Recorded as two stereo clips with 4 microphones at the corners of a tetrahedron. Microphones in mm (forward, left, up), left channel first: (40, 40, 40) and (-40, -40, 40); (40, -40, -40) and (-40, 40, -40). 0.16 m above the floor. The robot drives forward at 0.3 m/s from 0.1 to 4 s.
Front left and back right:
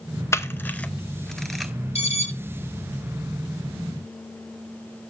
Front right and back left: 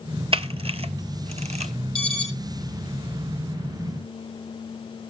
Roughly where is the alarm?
Ahead left.